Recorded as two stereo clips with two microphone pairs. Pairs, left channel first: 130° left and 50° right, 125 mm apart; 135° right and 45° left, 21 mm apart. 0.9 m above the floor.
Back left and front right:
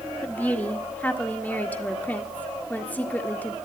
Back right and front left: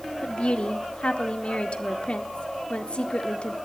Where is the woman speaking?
150° right, 1.7 m.